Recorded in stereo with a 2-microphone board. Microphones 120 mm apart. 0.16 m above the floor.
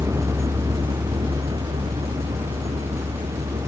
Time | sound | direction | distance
0.0 | a vehicle | 25° right (ahead or behind) | ?